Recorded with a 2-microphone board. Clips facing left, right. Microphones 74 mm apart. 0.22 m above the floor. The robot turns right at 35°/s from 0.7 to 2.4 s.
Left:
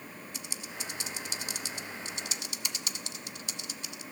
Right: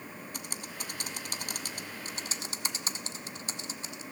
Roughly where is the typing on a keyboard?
Right.